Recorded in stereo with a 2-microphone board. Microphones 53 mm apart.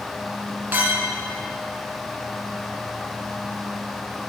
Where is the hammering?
I don't hear hammering.